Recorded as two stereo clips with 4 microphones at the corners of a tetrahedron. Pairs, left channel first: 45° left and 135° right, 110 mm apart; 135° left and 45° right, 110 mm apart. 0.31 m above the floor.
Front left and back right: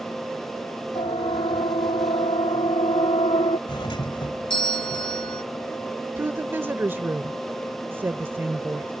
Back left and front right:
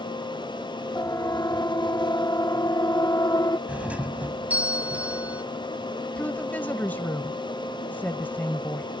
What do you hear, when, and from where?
0.9 s a siren: 75° left; by 3.6 s 80° left
3.7 s a doorbell: 30° left
6.2 s a woman speaking: 175° right